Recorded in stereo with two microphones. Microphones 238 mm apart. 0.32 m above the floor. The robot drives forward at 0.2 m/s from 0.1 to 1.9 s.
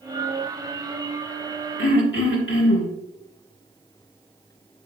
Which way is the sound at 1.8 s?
55° left (ahead or behind).